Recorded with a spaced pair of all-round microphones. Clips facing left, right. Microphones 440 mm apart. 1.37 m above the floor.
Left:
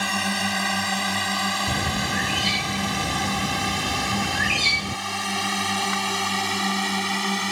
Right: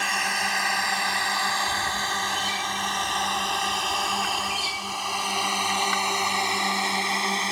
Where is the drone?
55° left (ahead or behind); by 7.5 s 25° left (ahead or behind).